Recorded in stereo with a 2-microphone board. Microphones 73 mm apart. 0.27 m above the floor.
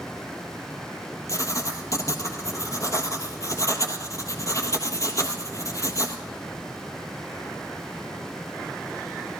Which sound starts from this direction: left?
Writing, at 1.3 s.